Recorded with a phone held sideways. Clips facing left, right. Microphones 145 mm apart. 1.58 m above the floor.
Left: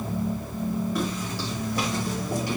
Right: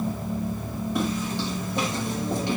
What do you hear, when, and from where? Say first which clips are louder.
0.9 s footsteps: right 2 dB; 25° right (ahead or behind), 4.5 m